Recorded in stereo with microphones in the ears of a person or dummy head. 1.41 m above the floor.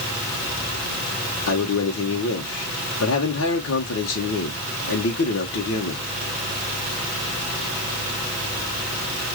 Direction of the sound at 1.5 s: 70° left (ahead or behind).